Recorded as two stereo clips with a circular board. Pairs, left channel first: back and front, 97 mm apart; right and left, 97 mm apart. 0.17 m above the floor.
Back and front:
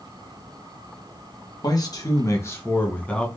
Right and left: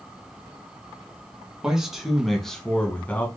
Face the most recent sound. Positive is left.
turn(degrees=-120)